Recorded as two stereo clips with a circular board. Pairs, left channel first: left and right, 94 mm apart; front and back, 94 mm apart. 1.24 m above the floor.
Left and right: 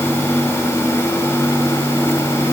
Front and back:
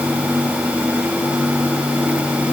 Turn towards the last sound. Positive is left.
No sound to turn to.